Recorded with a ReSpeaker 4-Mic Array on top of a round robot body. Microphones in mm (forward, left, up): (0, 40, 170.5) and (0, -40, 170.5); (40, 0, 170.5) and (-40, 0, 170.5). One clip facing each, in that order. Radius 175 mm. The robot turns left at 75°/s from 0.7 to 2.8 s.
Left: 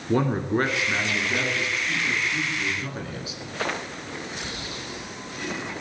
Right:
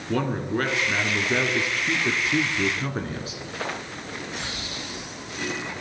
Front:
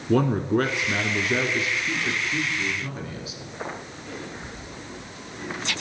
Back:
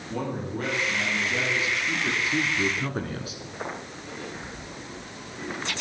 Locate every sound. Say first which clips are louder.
0.1 s a man speaking: left 3 dB, front 10 dB; 10° left, 1.8 m; by 3.4 s 150° right, 1.8 m